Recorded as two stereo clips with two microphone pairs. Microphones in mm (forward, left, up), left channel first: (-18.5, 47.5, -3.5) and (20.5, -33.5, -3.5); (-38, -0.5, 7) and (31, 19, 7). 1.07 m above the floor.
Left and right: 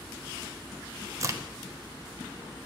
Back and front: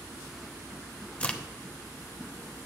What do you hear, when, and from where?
1.2 s a crack: 100° right, 0.6 m